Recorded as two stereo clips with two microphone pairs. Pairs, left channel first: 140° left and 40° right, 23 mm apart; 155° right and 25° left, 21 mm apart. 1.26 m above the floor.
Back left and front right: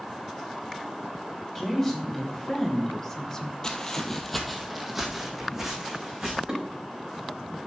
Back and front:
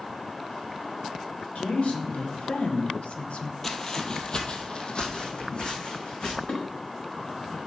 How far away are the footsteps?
About 1.4 m.